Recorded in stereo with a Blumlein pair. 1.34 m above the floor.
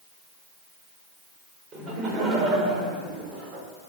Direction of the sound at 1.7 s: 20° right.